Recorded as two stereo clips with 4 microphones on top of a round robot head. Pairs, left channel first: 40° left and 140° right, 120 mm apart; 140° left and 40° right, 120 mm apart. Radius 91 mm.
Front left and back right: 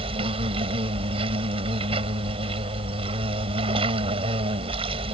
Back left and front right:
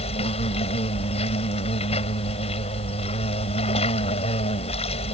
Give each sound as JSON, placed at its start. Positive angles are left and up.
{"t": 0.0, "sound": "an insect", "azimuth_deg": 175}